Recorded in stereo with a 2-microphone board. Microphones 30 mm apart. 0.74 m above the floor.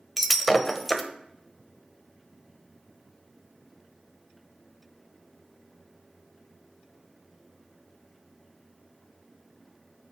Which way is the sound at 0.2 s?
Centre (ahead or behind).